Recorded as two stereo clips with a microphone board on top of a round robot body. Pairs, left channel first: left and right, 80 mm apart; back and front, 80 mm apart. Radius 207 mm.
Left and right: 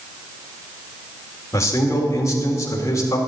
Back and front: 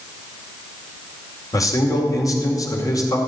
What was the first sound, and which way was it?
A man speaking, 140° left.